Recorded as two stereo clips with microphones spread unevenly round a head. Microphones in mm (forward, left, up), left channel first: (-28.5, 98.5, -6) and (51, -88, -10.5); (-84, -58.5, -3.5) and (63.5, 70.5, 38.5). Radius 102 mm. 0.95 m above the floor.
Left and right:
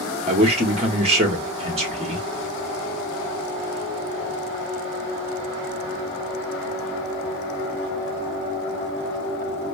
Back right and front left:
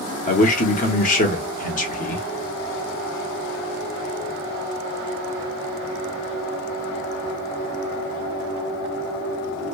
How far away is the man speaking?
About 1.3 m.